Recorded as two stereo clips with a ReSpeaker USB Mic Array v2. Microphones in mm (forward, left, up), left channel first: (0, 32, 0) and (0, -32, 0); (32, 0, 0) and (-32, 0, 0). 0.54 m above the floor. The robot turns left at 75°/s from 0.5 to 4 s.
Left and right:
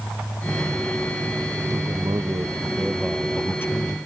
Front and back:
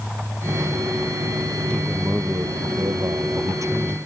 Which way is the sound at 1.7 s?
70° right.